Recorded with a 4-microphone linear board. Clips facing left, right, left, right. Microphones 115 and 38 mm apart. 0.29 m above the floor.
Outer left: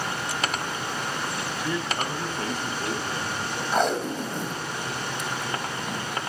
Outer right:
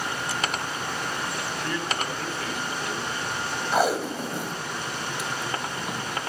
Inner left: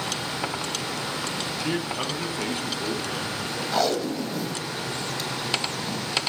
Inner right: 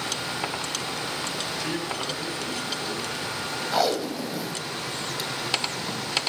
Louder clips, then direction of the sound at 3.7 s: Outer right 1 dB, even; 5° right (ahead or behind).